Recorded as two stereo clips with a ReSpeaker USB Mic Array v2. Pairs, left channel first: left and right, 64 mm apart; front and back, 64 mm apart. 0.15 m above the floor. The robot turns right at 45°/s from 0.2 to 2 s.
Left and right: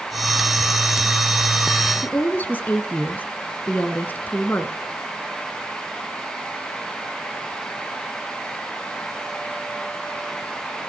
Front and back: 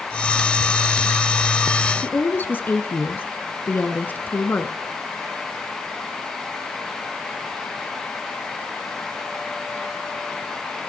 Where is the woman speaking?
40° left, 1.6 m.